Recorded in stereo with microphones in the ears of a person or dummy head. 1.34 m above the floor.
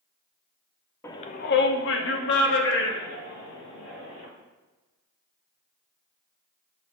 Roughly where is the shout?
Centre.